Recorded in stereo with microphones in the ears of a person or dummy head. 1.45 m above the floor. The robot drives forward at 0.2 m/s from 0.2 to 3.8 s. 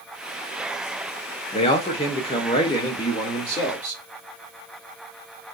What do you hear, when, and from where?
1.5 s a man speaking: 30° left (ahead or behind), 0.9 m; by 4.0 s 20° left (ahead or behind), 1.3 m